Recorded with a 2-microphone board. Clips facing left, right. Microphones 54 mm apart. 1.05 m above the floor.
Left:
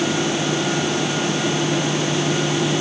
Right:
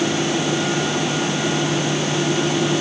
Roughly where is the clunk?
I don't hear a clunk.